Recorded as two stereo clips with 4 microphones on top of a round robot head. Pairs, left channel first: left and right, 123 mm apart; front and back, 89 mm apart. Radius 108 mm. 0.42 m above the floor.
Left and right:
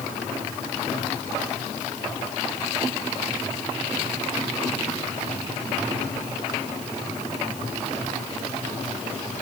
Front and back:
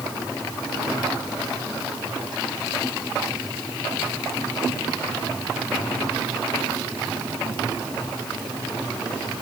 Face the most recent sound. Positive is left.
No sound to turn to.